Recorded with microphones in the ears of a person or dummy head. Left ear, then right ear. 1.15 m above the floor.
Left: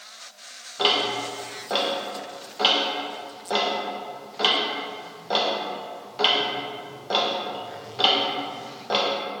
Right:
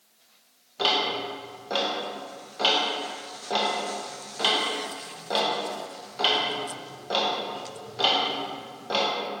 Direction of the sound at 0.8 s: 10° left (ahead or behind).